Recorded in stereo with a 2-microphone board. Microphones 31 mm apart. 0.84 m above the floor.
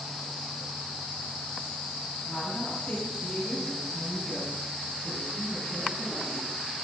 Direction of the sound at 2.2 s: 30° left (ahead or behind).